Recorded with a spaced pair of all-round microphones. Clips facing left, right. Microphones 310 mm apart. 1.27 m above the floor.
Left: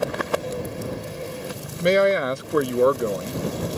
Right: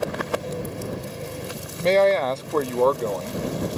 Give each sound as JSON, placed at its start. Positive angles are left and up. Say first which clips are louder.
{"t": 1.8, "sound": "a man speaking", "louder": "even", "side_deg": 15}